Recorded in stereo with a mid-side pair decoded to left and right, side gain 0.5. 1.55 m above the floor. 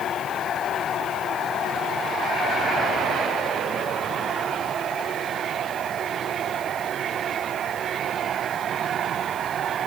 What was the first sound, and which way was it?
Only background noise.